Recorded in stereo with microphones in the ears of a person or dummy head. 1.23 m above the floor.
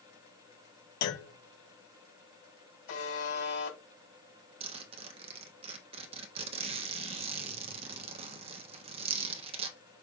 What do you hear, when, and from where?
1.0 s a clunk: 60° left (ahead or behind), 1.1 m
2.9 s a buzzer: 80° left, 3 m
4.6 s a zipper: 25° right (ahead or behind), 0.6 m